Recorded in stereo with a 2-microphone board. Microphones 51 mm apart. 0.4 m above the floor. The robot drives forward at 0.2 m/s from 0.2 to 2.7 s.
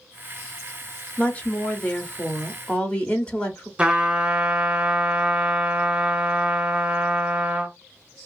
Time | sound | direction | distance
1.2 | a woman speaking | 25° left (ahead or behind) | 0.8 m
3.8 | a trumpet | 20° right (ahead or behind) | 1.1 m